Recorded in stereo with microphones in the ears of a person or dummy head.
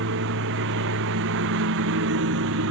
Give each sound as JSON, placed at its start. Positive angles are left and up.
{"t": 0.0, "sound": "a lawn mower", "side_deg": -70}